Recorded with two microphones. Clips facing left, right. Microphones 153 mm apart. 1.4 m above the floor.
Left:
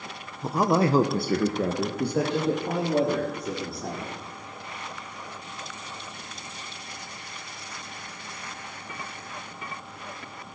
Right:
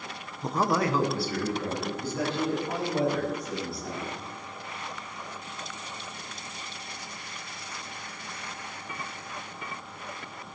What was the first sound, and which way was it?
A man speaking, centre (ahead or behind).